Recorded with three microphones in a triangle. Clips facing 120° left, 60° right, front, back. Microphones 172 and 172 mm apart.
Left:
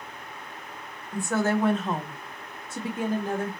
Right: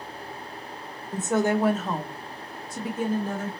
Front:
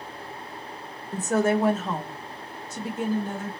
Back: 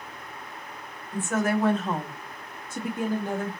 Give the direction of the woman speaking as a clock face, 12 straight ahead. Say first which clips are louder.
Right 2 dB, front 3 dB; 12 o'clock.